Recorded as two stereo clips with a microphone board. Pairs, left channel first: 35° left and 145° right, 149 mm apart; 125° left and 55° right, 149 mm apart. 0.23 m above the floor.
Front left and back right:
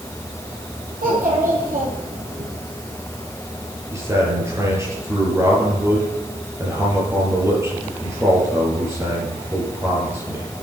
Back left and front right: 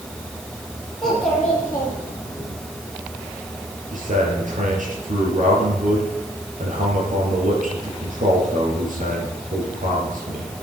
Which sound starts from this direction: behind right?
A child speaking, at 1.0 s.